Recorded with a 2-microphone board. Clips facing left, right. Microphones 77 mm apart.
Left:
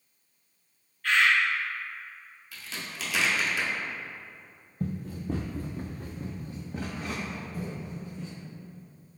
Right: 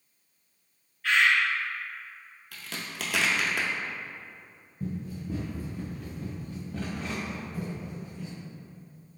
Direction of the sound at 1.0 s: 5° right (ahead or behind).